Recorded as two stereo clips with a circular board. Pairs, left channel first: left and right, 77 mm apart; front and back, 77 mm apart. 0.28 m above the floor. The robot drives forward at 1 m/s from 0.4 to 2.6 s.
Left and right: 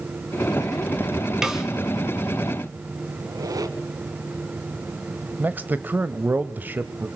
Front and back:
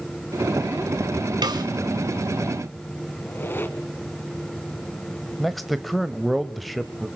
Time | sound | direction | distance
1.4 | a snare drum | 175° right | 2 m
3.2 | a squeak | 60° right | 1.6 m
5.4 | a man speaking | 90° right | 1.0 m